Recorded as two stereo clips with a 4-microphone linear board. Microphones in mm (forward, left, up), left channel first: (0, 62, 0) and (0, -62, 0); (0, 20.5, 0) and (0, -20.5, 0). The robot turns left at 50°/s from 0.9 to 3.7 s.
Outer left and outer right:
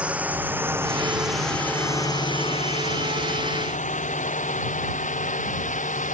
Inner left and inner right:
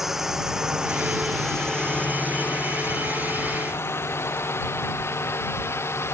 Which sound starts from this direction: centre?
A drone, at 0.0 s.